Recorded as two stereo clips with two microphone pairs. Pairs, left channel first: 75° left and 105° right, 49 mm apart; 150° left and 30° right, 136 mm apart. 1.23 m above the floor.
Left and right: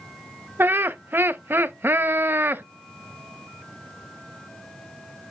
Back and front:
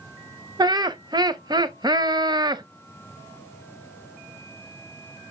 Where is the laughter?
80° right, 0.7 m.